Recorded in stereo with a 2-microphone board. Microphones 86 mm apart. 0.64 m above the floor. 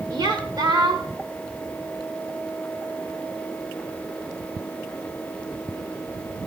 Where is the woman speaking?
55° right (ahead or behind), 2.0 m.